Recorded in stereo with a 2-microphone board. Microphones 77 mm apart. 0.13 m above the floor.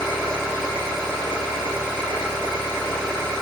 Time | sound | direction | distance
0.0 | an engine running | 5° left (ahead or behind) | 3 m